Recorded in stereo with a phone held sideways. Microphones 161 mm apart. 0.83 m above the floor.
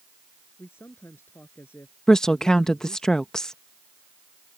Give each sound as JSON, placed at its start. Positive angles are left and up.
{"t": 0.6, "sound": "a man speaking", "side_deg": 15}
{"t": 2.1, "sound": "a woman speaking", "side_deg": 5}